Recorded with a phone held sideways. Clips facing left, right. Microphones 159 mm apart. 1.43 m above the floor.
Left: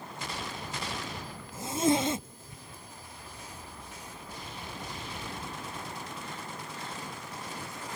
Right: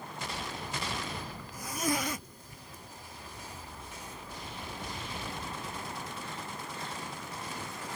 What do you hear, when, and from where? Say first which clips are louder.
1.5 s a zipper: left 6 dB; 25° left (ahead or behind)